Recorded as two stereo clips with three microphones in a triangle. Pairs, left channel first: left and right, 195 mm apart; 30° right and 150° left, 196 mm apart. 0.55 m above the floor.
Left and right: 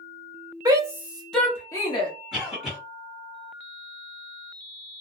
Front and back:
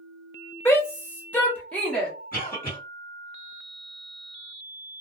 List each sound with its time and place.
0.7 s a shout: 85° right, 0.8 m; by 2.1 s 55° left, 0.9 m
2.3 s a cough: straight ahead, 1.9 m